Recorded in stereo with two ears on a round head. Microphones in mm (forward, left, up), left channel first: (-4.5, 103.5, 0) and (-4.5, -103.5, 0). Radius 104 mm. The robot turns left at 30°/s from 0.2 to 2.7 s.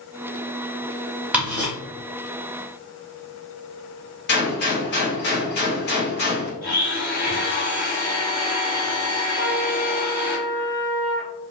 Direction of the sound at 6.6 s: 40° left (ahead or behind).